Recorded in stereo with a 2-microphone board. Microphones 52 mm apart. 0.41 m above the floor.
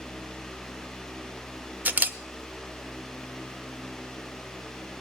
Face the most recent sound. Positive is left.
turn(degrees=-35)  # may be behind; listen again after turning